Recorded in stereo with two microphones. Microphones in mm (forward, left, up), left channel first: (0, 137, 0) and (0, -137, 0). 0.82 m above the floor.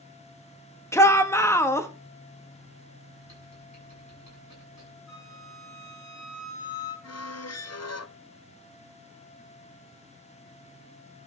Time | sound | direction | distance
0.9 | a shout | 10° left (ahead or behind) | 1.2 m
3.2 | typing on a keyboard | 80° left | 7.5 m
5.1 | a flute | 75° left (ahead or behind) | 5.5 m
7.0 | a squeak | 65° left (ahead or behind) | 0.6 m